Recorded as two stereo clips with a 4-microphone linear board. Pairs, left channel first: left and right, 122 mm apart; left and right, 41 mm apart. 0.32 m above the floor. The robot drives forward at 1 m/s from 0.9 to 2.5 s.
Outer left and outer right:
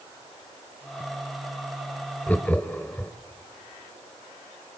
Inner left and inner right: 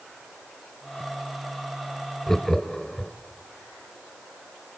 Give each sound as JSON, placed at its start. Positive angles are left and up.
{"t": 2.3, "sound": "laughter", "side_deg": 10, "distance_m": 1.5}